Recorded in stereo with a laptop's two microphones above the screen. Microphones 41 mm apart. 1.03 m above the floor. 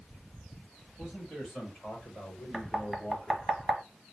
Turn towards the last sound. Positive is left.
turn(degrees=-5)  # may be behind; listen again after turning